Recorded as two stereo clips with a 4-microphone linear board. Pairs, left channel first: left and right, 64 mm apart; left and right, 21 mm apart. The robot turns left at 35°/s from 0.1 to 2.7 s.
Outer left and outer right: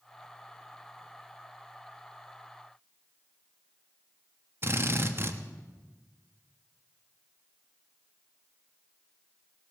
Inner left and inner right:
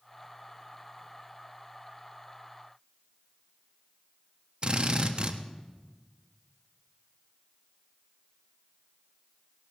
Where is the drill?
40° right (ahead or behind), 1.1 m.